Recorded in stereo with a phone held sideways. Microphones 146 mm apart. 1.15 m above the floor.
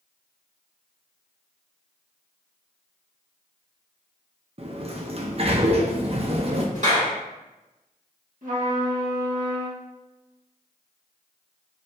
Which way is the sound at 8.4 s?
65° right (ahead or behind).